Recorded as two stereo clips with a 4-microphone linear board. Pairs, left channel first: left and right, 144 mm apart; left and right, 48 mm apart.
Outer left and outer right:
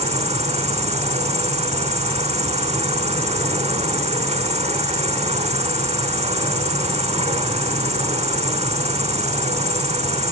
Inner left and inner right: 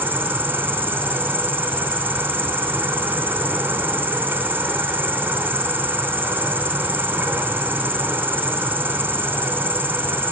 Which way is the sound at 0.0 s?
45° right (ahead or behind).